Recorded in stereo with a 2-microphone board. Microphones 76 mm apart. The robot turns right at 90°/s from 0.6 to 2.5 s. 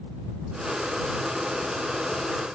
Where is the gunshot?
No gunshot in this recording.